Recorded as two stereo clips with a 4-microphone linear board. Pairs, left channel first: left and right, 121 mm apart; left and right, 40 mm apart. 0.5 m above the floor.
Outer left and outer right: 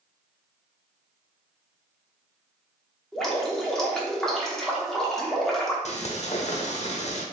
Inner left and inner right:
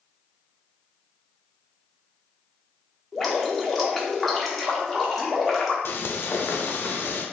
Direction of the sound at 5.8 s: 60° left (ahead or behind).